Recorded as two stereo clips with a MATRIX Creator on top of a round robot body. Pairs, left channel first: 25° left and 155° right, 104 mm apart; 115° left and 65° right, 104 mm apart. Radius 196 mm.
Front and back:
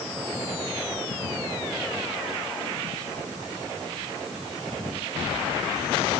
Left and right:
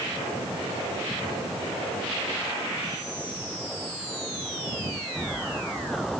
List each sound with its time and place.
Only background noise.